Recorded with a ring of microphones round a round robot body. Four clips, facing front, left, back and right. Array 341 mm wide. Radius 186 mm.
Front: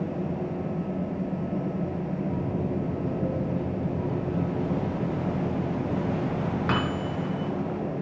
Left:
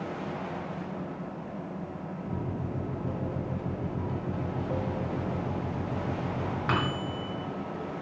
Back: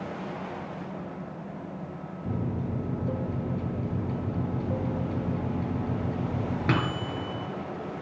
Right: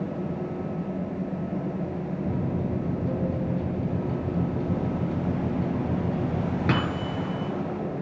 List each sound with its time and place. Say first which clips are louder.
2.2 s a microwave: right 5 dB, back 1 dB; 135° right, 3 m